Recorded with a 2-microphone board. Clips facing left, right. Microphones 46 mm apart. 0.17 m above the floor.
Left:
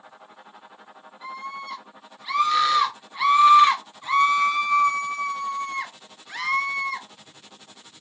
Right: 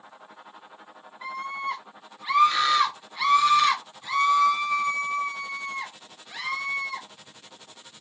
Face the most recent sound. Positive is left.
turn(degrees=65)  # may be behind; listen again after turning